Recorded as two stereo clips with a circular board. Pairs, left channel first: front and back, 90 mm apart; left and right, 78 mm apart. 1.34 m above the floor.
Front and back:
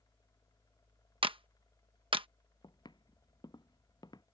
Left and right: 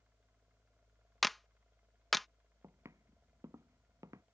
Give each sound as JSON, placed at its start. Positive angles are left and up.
{"t": 1.2, "sound": "a clap", "azimuth_deg": 180}
{"t": 2.6, "sound": "footsteps", "azimuth_deg": -40}